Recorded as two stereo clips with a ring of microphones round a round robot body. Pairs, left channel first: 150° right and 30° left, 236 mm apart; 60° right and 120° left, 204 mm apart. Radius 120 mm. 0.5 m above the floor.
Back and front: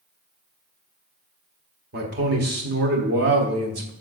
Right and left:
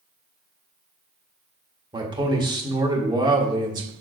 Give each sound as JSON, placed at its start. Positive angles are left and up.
{"t": 1.9, "sound": "a man speaking", "azimuth_deg": 60, "distance_m": 1.5}